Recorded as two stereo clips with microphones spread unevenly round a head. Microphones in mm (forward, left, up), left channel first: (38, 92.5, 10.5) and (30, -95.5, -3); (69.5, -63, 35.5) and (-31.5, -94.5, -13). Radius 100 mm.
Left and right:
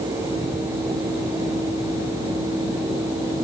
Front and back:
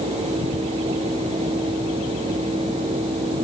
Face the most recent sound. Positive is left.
No sound to turn to.